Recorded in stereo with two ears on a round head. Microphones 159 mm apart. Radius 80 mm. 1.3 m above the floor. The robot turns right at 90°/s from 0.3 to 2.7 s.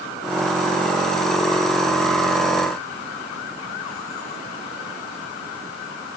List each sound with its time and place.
Only background noise.